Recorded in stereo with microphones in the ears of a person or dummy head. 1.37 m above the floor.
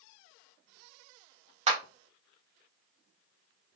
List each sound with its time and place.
1.7 s a clap: 35° right (ahead or behind), 0.8 m